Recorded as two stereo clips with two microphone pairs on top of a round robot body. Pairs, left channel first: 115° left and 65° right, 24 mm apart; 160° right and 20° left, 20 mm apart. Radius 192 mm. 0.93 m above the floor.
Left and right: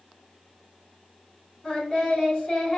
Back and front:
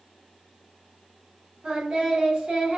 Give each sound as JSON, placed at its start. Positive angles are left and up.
{"t": 1.6, "sound": "singing", "azimuth_deg": 55, "distance_m": 3.5}